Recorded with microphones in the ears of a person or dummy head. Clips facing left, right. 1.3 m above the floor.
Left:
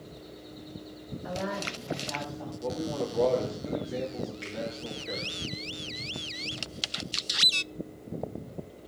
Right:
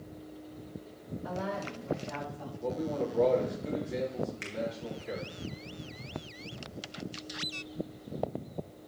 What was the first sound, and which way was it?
A woman speaking, 15° left (ahead or behind).